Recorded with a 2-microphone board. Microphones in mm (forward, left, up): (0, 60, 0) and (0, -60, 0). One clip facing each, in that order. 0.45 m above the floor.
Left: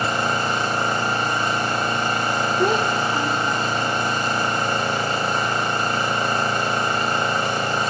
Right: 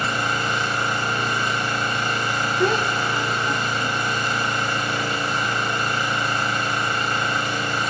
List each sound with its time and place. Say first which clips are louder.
0.0 s an engine running: left 2 dB; 35° left (ahead or behind), 1.3 m
2.6 s a child speaking: even; 15° left (ahead or behind), 0.6 m